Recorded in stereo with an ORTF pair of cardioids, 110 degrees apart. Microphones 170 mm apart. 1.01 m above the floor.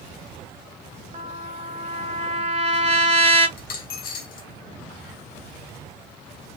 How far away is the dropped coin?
About 1.2 m.